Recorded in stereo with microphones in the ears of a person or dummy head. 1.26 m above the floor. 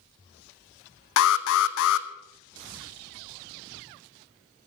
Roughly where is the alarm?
Left.